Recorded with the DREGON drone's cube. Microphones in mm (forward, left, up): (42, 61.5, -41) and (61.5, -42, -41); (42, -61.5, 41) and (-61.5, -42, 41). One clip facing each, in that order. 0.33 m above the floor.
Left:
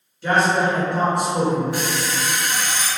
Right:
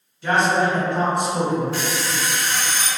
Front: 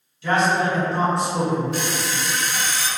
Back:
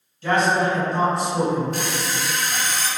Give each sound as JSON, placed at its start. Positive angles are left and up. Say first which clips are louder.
{"t": 0.2, "sound": "a man speaking", "louder": "even, even", "azimuth_deg": -165, "distance_m": 1.7}
{"t": 1.7, "sound": "an alarm clock", "louder": "left 1 dB, front 1 dB", "azimuth_deg": 165, "distance_m": 0.5}